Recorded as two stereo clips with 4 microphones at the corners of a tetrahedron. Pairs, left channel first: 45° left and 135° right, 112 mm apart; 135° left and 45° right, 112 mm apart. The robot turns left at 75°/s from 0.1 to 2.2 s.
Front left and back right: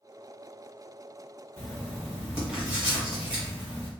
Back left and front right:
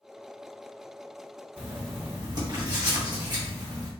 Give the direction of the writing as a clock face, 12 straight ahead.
12 o'clock.